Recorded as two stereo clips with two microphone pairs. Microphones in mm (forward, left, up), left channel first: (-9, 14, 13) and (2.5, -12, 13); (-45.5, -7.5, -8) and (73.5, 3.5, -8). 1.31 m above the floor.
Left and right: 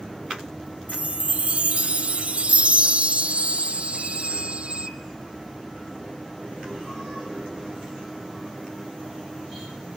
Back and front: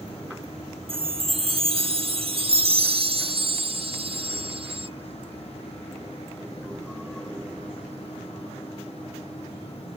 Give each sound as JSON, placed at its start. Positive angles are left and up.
{"t": 0.9, "sound": "a chime", "azimuth_deg": -30}